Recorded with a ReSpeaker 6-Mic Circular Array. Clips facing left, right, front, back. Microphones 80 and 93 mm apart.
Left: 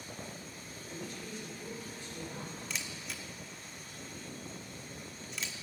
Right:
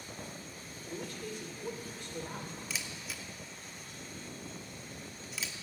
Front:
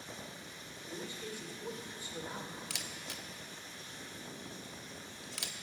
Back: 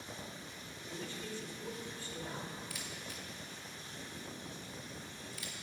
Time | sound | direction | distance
0.9 | a man speaking | 70° right | 2 m
2.7 | a camera shutter | straight ahead | 0.8 m